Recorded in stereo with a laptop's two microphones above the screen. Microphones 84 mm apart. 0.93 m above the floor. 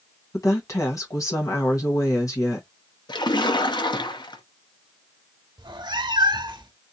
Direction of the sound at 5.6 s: 60° right (ahead or behind).